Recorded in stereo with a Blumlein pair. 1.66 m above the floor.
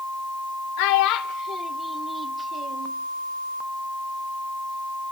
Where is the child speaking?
45° left, 1.7 m; by 2.9 s 35° right, 1.6 m.